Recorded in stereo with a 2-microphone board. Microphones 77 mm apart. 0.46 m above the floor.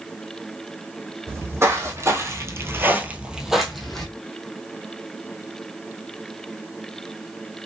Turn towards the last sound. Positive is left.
turn(degrees=5)  # may be behind; listen again after turning